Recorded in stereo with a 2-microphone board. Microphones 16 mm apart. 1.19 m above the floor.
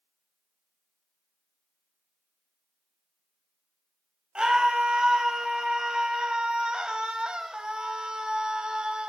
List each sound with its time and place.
4.3 s a scream: 70° right (ahead or behind), 1.8 m